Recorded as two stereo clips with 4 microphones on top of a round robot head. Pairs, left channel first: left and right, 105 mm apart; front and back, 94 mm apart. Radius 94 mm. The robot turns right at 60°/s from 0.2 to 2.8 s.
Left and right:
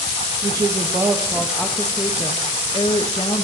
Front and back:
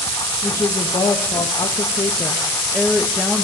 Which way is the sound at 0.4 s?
60° right.